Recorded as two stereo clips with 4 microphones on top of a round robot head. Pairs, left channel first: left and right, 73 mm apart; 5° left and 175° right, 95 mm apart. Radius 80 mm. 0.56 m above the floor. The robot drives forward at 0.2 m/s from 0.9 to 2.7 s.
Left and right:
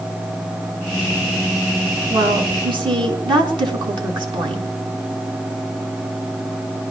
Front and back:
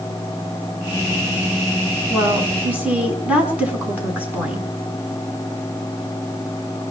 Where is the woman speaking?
100° right, 6 m.